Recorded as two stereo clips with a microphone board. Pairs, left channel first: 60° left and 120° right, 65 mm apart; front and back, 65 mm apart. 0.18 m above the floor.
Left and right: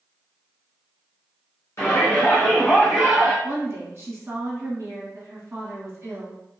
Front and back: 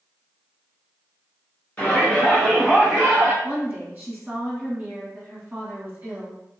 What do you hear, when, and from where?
1.8 s a shout: 55° left, 1.4 m; by 3.3 s 155° right, 1.1 m
3.4 s a woman speaking: 145° right, 1.4 m